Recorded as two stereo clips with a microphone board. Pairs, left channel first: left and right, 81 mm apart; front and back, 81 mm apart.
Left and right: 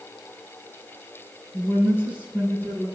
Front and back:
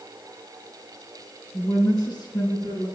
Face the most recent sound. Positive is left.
turn(degrees=20)